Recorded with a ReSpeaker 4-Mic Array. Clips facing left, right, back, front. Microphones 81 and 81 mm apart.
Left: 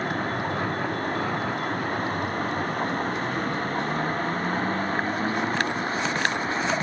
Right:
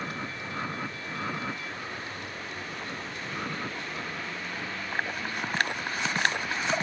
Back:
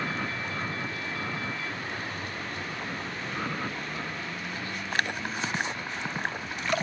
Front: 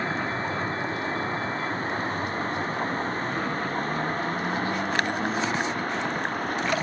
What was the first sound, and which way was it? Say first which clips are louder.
A vehicle: left 9 dB, front 5 dB; 55° left.